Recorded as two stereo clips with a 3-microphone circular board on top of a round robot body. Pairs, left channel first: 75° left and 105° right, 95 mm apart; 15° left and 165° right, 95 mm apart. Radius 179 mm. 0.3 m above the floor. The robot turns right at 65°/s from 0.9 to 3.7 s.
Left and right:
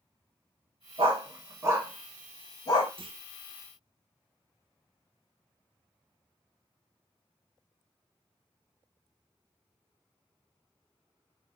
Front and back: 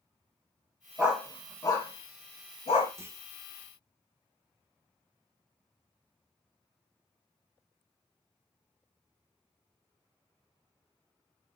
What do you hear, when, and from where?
1.0 s a dog barking: 85° right, 1.1 m; by 2.9 s 40° left, 1.1 m
3.0 s a clunk: 110° right, 0.7 m; by 3.2 s 95° right, 0.7 m